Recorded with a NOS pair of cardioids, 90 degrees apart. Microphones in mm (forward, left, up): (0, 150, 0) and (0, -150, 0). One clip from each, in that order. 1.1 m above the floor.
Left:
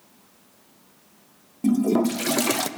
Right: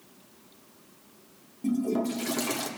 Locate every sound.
1.6 s a toilet flushing: 35° left, 0.5 m